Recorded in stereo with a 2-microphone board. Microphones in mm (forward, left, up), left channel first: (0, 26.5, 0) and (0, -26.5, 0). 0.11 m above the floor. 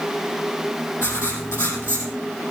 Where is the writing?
60° left (ahead or behind), 4 m.